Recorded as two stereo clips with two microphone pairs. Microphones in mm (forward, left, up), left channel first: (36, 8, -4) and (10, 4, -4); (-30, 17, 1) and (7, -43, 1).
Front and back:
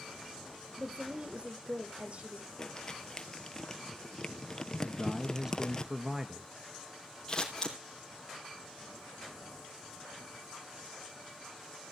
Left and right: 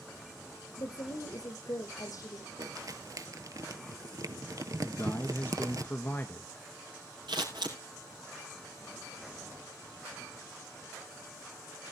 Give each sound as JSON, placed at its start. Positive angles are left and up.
{"t": 0.8, "sound": "a woman speaking", "azimuth_deg": 150, "distance_m": 4.5}
{"t": 2.6, "sound": "crumpling", "azimuth_deg": -50, "distance_m": 1.0}
{"t": 4.8, "sound": "a man speaking", "azimuth_deg": 150, "distance_m": 1.1}
{"t": 7.3, "sound": "scissors", "azimuth_deg": -60, "distance_m": 4.0}